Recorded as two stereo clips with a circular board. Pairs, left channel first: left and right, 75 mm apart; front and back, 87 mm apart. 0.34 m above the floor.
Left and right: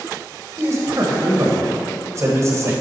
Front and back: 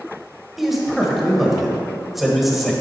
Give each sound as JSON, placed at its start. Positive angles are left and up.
{"t": 0.6, "sound": "a man speaking", "azimuth_deg": -95, "distance_m": 1.2}